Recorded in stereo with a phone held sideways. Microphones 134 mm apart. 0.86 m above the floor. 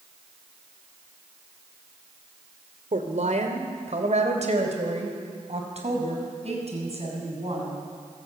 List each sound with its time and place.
2.9 s a woman speaking: 65° right (ahead or behind), 3 m; by 7.8 s 50° right (ahead or behind), 7.5 m